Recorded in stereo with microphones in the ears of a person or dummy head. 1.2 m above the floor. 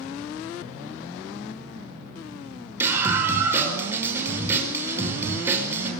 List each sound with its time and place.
2.8 s a scream: 15° right (ahead or behind), 5.5 m